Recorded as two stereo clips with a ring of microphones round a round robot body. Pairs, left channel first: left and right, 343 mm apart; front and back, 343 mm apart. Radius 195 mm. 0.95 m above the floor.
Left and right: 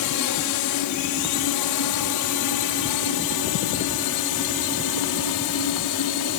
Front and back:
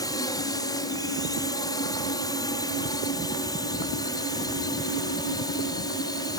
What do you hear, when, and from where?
0.0 s a drone: 80° left